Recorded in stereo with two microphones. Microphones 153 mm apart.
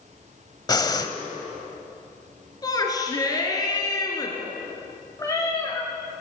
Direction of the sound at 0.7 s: 25° left (ahead or behind).